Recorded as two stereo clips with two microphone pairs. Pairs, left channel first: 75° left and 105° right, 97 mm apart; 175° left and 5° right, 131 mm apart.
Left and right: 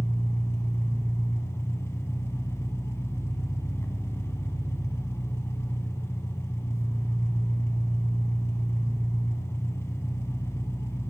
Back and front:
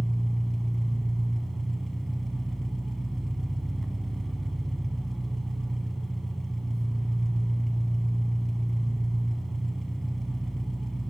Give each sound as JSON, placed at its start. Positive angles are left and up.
{"t": 0.0, "sound": "an engine running", "azimuth_deg": 85, "distance_m": 1.1}